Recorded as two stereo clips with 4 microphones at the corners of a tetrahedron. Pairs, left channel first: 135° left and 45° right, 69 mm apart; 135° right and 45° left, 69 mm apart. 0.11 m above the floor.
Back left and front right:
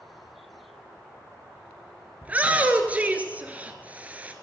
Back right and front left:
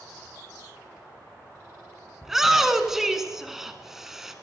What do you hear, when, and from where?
2.2 s a shout: 30° right, 1.1 m